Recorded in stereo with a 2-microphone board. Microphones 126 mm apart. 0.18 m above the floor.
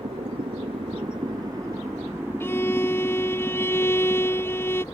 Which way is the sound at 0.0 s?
50° right (ahead or behind).